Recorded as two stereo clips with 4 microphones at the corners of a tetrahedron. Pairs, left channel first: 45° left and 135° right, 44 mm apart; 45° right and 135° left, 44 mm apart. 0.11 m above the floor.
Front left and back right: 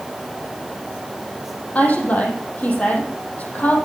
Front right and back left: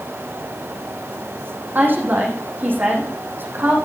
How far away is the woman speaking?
About 5 m.